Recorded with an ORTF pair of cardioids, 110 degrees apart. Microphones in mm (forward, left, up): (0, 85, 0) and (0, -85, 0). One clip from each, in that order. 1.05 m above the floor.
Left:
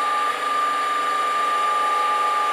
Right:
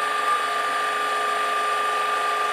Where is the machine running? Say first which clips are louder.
Left 1 dB; 35° right, 0.7 m.